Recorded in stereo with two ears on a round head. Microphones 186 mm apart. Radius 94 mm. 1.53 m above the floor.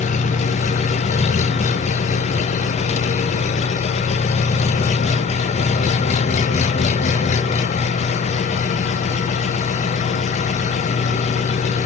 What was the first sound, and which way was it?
An engine running, 35° left (ahead or behind).